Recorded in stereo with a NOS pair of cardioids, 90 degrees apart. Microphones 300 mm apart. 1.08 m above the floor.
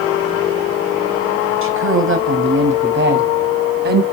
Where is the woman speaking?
45° right, 6 m; by 4.0 s 30° right, 6 m.